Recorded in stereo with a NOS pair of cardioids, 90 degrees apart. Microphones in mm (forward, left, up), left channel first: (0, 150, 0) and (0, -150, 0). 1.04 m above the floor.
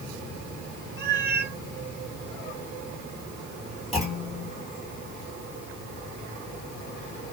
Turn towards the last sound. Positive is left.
turn(degrees=0)